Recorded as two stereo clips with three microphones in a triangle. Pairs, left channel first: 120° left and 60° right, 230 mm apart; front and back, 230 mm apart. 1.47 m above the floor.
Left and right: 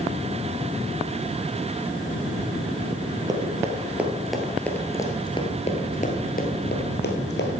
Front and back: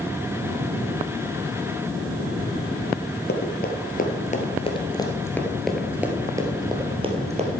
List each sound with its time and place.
3.3 s running footsteps: 5° left, 2 m; by 7.5 s 130° left, 2.5 m